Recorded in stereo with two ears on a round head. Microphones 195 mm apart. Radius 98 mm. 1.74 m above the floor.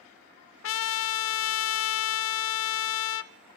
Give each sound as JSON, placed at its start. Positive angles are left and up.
{"t": 0.6, "sound": "a trumpet", "side_deg": 65, "distance_m": 0.8}